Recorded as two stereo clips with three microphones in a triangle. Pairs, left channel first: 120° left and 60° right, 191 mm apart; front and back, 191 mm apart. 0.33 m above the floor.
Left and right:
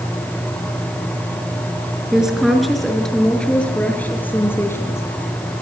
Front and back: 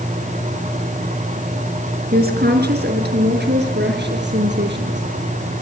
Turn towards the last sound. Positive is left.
turn(degrees=-165)